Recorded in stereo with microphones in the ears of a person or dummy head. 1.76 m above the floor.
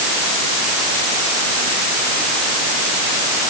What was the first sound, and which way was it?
Only background noise.